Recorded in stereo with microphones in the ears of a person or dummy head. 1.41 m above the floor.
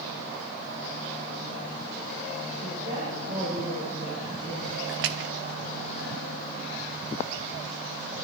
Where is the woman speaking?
25° right (ahead or behind), 6.5 m.